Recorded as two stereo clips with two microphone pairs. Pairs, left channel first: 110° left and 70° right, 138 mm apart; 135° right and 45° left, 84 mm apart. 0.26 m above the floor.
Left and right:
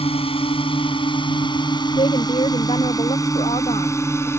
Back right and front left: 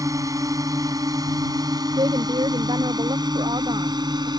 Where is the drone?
80° left; by 4.4 s 40° left.